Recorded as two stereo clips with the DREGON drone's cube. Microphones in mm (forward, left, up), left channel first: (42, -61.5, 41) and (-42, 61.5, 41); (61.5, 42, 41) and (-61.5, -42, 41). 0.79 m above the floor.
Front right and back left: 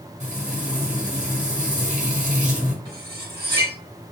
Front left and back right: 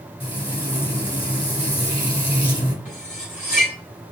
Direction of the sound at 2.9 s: 70° left.